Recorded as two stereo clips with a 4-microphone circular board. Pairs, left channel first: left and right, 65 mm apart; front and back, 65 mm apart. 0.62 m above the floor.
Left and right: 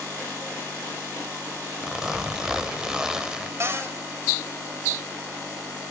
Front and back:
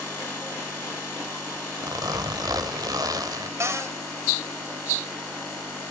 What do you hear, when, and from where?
1.8 s a zipper: 170° right, 1.3 m
3.6 s a cupboard door: 135° right, 2 m